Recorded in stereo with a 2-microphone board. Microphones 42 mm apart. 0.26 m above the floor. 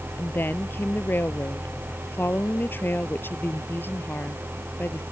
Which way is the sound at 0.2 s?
55° left (ahead or behind).